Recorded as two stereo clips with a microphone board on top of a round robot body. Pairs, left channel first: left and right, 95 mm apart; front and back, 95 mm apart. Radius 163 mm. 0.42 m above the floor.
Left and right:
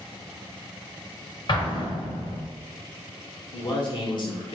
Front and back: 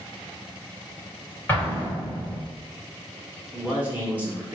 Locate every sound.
1.5 s an explosion: 65° left, 2 m
3.5 s a man speaking: 110° left, 2.0 m